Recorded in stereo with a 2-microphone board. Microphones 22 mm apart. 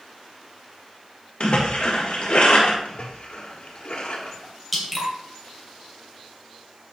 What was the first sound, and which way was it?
A splash, 75° left (ahead or behind).